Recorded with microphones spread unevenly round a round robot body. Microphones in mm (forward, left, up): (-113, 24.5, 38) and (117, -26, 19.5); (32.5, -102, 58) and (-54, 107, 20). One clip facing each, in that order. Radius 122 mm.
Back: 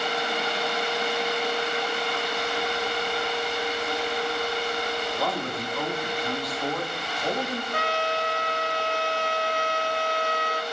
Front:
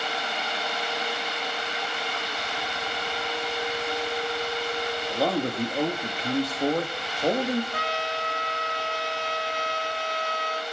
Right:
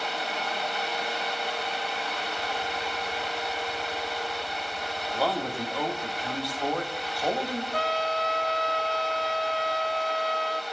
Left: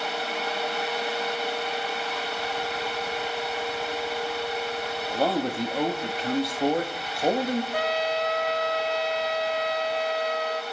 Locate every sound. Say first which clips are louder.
5.1 s a man speaking: front 4 dB, left 4 dB; 45° left, 1.5 m
7.7 s a trumpet: back 4 dB, left 2 dB; 175° left, 0.9 m